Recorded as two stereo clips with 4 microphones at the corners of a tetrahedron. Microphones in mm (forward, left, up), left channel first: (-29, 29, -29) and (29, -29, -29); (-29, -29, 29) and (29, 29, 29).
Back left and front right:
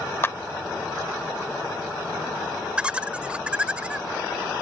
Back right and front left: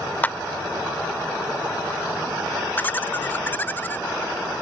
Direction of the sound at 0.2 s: 170° left.